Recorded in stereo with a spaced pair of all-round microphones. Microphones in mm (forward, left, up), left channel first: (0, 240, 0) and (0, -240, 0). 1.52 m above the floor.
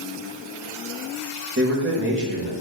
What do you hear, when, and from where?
1.6 s a man speaking: 25° right (ahead or behind), 2 m